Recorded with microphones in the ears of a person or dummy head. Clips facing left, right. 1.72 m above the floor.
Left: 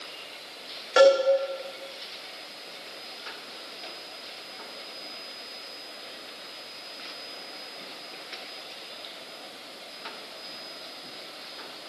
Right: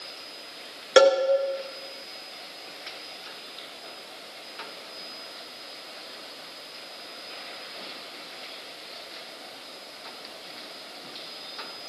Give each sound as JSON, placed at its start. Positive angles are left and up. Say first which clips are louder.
{"t": 1.0, "sound": "a cowbell", "louder": "even", "side_deg": -50, "distance_m": 1.6}